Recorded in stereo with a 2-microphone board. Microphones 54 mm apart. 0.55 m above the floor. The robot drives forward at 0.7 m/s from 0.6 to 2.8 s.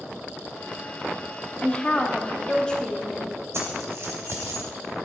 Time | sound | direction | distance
1.6 | a woman speaking | 25° left (ahead or behind) | 0.8 m
3.5 | keys jangling | 60° right (ahead or behind) | 1.9 m